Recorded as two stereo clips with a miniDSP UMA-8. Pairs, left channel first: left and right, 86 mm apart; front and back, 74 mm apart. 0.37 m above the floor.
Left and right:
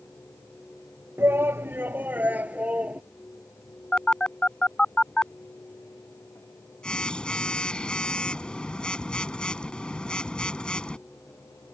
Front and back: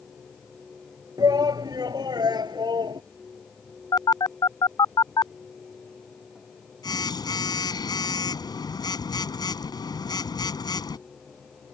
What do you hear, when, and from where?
1.2 s a shout: 150° right; by 3.0 s 165° right
3.9 s a phone buzzing: 10° left